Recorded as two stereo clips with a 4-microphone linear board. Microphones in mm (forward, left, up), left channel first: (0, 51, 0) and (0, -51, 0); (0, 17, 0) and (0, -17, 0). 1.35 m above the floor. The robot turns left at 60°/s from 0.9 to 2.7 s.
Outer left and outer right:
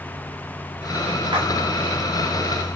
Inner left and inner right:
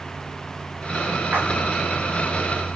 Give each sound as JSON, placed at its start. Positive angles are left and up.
{"t": 1.3, "sound": "a splash", "side_deg": -60, "distance_m": 0.8}